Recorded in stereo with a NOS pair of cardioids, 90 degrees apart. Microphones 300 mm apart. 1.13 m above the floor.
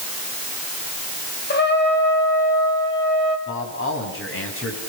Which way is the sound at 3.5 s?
45° left.